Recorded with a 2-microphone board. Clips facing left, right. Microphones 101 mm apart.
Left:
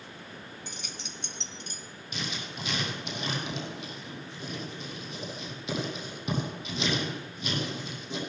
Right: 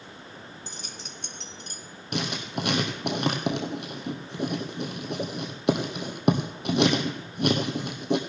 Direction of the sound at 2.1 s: 65° right (ahead or behind).